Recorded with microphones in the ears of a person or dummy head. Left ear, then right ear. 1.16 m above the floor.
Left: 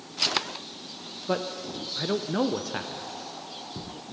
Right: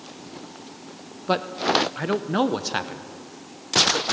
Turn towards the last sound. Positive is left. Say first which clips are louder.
# right 9 dB
turn(degrees=-20)  # may be behind; listen again after turning